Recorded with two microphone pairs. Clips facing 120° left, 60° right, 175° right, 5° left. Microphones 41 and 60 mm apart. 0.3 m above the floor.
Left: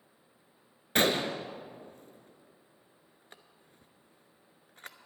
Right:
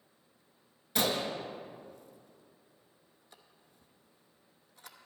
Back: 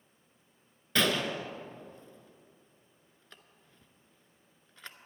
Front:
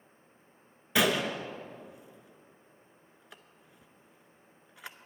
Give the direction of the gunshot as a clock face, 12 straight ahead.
9 o'clock.